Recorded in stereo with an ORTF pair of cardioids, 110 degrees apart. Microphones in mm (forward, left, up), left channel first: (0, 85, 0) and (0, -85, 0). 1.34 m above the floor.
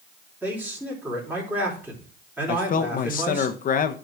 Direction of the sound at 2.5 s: 50° left.